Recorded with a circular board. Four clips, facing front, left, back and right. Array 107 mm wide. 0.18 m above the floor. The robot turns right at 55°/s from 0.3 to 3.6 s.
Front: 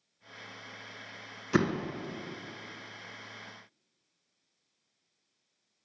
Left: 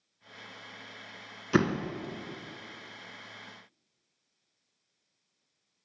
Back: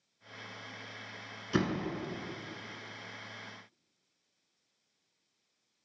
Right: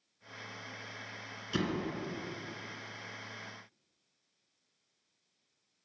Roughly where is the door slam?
Ahead left.